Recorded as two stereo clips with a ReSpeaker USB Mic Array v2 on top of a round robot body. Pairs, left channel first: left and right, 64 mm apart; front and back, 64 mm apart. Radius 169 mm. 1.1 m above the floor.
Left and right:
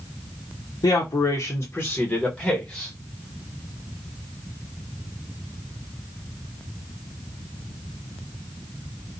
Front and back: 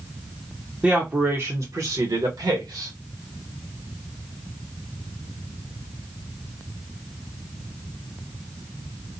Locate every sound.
0.8 s a man speaking: 105° left, 0.6 m; by 2.9 s straight behind, 1.3 m